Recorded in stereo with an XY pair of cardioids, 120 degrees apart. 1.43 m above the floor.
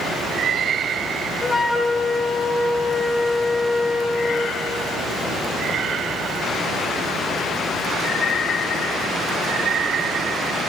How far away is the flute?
About 1.1 m.